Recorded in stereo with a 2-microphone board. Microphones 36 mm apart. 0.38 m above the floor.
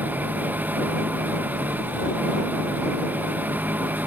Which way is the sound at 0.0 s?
50° right (ahead or behind).